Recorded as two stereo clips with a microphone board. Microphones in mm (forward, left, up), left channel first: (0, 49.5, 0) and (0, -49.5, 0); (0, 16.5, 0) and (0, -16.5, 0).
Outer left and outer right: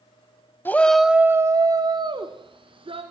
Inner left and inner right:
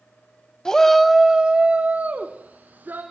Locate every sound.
0.7 s a shout: 20° left (ahead or behind), 1.0 m; by 3.0 s 70° right (ahead or behind), 2.5 m